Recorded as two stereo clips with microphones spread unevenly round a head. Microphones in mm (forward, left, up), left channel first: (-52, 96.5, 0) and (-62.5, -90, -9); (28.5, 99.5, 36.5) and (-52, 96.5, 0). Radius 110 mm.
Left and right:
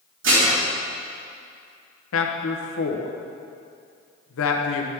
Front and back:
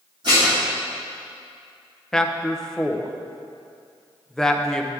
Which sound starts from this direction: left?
A man speaking, at 2.1 s.